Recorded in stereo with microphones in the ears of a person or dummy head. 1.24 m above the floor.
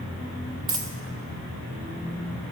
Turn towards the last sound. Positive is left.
turn(degrees=-25)  # may be behind; listen again after turning